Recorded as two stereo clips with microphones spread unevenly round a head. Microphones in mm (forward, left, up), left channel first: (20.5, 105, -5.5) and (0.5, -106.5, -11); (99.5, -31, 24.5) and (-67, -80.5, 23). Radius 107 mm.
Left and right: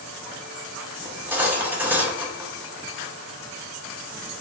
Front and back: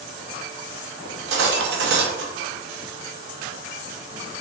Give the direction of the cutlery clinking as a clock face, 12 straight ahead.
6 o'clock.